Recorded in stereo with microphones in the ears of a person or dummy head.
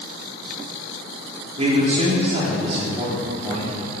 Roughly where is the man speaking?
Right.